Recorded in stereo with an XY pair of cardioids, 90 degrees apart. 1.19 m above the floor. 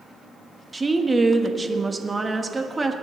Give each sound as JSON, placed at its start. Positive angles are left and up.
{"t": 0.7, "sound": "a woman speaking", "azimuth_deg": -25, "distance_m": 1.3}